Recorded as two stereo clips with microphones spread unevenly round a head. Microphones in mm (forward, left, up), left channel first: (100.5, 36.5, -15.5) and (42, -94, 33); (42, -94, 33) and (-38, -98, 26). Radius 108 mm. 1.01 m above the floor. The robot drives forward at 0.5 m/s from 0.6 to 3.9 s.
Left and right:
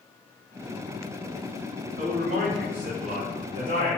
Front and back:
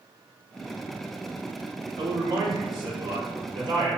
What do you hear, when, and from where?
2.0 s a man speaking: straight behind, 2.5 m